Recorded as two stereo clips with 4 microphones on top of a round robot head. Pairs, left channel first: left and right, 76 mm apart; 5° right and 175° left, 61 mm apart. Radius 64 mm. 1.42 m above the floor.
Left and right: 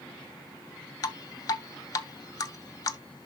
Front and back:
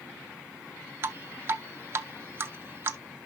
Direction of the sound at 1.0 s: 130° left.